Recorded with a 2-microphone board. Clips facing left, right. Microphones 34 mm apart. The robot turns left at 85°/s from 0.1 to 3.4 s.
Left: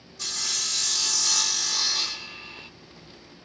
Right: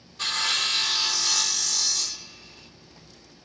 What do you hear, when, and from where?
0.2 s sawing: 70° right, 1.1 m; by 2.7 s 80° left, 1.1 m